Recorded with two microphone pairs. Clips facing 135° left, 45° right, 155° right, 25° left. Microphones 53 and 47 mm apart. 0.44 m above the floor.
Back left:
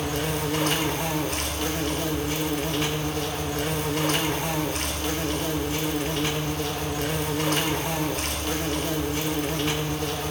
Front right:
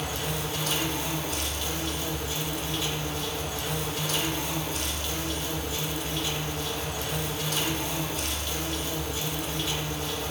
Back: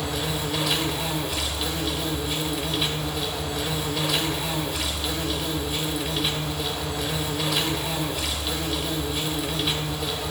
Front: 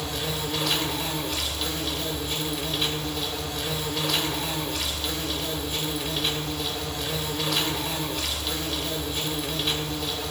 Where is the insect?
115° left, 1.0 m.